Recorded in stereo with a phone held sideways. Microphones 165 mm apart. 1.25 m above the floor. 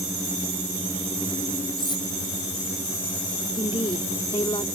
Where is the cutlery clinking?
25° left (ahead or behind).